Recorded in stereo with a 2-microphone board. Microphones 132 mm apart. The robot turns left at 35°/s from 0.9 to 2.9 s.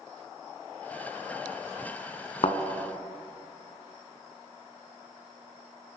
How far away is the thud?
About 1.2 m.